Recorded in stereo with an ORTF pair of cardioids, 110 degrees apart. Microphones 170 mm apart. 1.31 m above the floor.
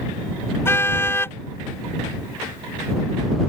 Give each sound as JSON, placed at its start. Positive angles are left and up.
{"t": 0.7, "sound": "a car horn", "azimuth_deg": 15}